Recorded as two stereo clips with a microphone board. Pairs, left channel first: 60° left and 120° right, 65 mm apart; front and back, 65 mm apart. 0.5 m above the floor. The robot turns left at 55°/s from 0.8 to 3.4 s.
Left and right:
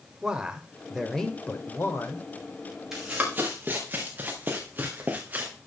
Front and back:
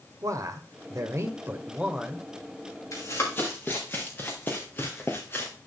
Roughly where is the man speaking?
Behind.